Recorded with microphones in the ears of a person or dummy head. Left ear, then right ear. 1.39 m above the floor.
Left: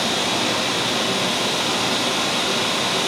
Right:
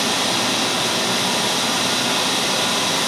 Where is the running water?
15° right (ahead or behind), 6.5 m.